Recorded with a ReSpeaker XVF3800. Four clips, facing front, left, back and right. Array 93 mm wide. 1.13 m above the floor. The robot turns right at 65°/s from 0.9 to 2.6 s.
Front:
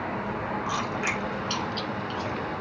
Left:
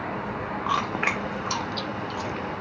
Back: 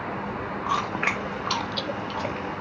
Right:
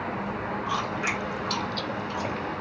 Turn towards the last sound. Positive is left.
turn(degrees=-125)